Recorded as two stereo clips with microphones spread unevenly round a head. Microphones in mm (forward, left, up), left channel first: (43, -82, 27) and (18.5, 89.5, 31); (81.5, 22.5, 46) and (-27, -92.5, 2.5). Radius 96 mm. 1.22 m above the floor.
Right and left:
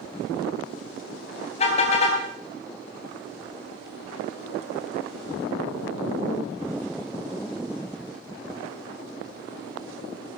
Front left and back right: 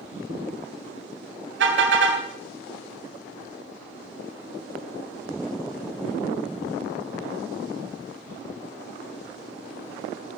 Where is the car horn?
140° right, 4.5 m.